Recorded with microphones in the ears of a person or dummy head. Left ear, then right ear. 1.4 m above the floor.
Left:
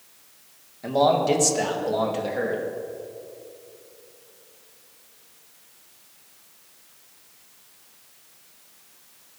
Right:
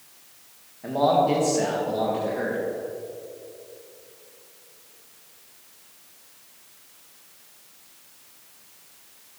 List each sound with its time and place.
0.8 s a man speaking: 80° left, 1.9 m